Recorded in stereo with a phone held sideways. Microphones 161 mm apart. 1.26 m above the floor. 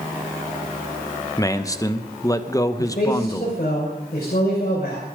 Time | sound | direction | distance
1.4 | a man speaking | 20° left (ahead or behind) | 1.0 m
2.8 | a man speaking | 65° left (ahead or behind) | 5 m